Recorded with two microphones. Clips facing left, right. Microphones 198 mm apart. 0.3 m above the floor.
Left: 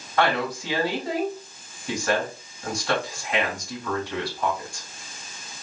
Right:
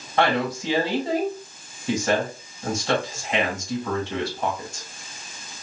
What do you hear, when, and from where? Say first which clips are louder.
0.2 s a woman speaking: right 2 dB; 25° right (ahead or behind), 2 m